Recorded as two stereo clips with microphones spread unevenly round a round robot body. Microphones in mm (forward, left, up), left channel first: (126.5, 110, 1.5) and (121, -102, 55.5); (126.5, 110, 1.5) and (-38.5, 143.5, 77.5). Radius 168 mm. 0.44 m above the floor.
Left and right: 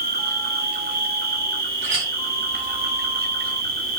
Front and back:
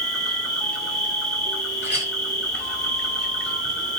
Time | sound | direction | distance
0.0 | an insect | 55° right | 2 m
1.8 | a clink | 65° right | 4 m